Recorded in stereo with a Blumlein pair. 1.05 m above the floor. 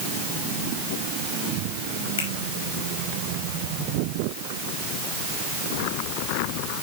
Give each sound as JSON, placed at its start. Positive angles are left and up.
{"t": 2.2, "sound": "a finger snap", "azimuth_deg": 65, "distance_m": 5.0}